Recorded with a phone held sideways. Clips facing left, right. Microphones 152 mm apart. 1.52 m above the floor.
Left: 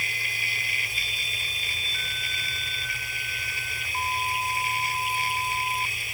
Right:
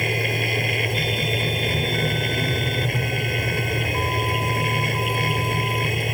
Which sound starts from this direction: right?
A machine running, at 0.0 s.